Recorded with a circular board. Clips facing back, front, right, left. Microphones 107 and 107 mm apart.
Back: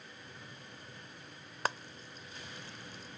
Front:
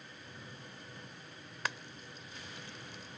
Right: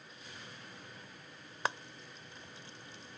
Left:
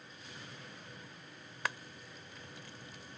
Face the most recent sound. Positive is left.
turn(degrees=-145)